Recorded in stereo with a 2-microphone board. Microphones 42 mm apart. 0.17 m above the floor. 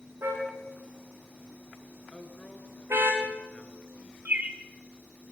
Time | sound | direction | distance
0.2 | a car horn | 85° right | 8.5 m
2.1 | a woman speaking | 25° left (ahead or behind) | 3 m
4.2 | a bird | 40° right (ahead or behind) | 1.5 m